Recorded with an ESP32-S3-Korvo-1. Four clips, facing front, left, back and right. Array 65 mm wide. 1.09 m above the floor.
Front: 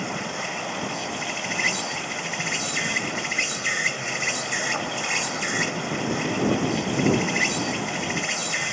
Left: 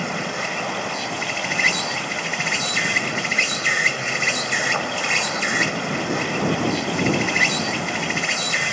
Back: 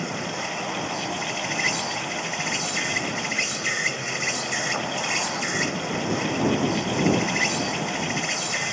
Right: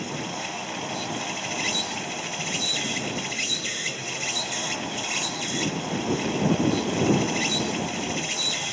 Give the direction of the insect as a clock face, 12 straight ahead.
9 o'clock.